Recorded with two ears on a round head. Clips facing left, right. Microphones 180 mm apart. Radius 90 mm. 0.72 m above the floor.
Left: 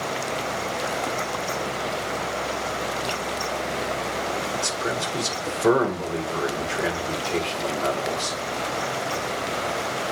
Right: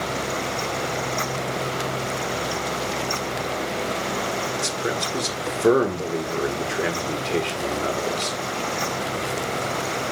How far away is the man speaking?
About 1.6 m.